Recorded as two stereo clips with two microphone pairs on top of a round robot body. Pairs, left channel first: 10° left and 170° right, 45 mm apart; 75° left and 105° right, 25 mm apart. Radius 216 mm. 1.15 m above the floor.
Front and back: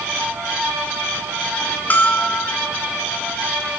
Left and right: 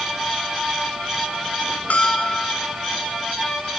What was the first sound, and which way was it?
A bell, 60° left.